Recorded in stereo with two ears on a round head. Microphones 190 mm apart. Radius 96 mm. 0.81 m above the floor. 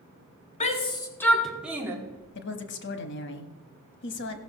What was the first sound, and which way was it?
A shout, 35° left (ahead or behind).